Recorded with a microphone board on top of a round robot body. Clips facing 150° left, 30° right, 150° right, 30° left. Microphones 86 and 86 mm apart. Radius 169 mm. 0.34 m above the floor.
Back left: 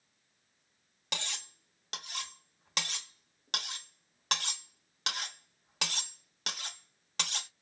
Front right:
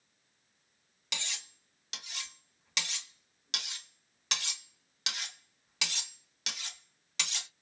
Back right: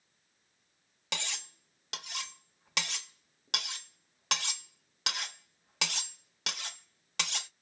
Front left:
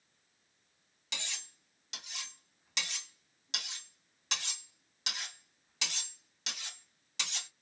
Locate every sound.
1.1 s cutlery clinking: 170° right, 1.0 m